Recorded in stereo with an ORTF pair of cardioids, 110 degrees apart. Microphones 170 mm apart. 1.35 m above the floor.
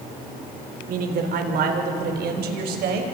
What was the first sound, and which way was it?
A man speaking, 60° right.